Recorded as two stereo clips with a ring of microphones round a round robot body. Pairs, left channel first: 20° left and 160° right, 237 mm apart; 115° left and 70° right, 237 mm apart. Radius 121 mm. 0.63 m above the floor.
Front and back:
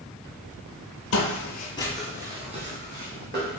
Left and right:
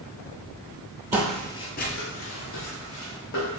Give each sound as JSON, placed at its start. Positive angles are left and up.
{"t": 1.1, "sound": "footsteps", "azimuth_deg": 15, "distance_m": 1.0}